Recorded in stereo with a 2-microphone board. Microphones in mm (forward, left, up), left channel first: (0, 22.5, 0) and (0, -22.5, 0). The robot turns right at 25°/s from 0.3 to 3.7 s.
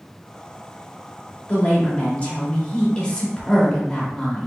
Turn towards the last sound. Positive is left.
turn(degrees=140)